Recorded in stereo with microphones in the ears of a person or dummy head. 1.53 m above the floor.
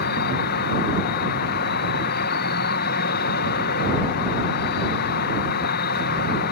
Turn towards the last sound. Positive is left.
turn(degrees=60)  # may be behind; listen again after turning